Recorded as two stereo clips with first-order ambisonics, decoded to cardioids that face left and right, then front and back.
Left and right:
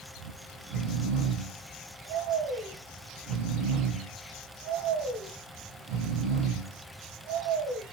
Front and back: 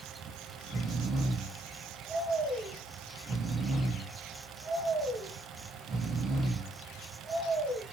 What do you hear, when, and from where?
0.2 s snoring: 110° right, 7 m